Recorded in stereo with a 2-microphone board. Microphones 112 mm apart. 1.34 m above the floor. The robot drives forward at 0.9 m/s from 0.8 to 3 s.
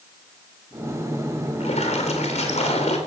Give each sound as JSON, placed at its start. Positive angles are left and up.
{"t": 1.6, "sound": "a splash", "side_deg": 80, "distance_m": 3.5}